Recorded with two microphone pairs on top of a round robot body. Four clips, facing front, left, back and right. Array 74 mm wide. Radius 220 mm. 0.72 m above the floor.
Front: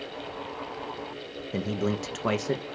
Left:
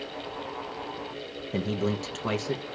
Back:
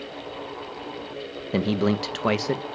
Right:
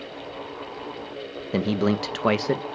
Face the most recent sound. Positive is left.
turn(degrees=-105)